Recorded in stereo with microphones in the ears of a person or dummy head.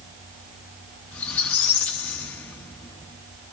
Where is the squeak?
10° left (ahead or behind), 1.0 m.